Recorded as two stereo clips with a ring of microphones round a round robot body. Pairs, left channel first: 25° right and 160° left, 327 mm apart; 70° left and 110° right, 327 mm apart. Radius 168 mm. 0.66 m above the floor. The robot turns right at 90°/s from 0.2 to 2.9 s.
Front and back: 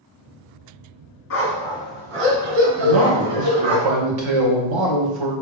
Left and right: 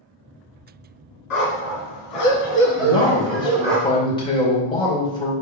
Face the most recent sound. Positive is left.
turn(degrees=145)